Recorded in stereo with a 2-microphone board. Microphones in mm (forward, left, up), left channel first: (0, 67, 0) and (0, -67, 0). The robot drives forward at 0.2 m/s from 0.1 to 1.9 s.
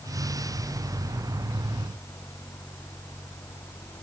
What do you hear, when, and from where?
Only background noise.